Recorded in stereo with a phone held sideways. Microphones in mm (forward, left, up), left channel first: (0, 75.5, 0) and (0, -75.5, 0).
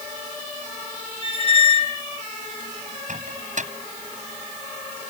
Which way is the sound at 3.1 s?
55° right (ahead or behind).